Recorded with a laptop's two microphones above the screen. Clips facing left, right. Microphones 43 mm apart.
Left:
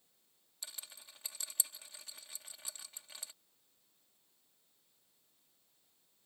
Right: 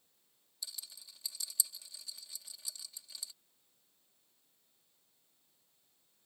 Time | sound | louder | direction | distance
0.6 | a rattle | right 2 dB | 45° left (ahead or behind) | ?